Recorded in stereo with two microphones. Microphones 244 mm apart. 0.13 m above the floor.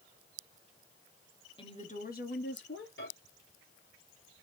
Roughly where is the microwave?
Left.